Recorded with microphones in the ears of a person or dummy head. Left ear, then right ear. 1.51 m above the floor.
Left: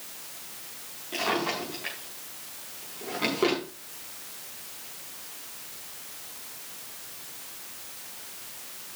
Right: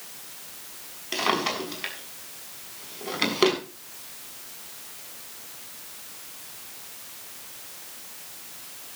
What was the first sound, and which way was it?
A drawer, 70° right (ahead or behind).